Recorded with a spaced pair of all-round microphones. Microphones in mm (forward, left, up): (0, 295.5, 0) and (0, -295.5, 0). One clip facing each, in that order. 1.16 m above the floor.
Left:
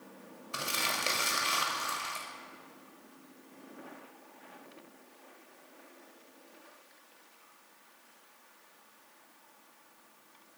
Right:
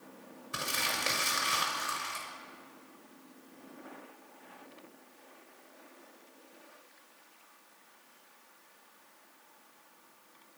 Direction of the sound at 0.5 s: 40° right (ahead or behind).